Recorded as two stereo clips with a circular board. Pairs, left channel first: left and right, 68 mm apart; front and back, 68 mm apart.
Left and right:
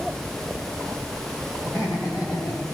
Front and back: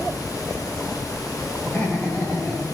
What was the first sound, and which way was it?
Laughter, 70° left.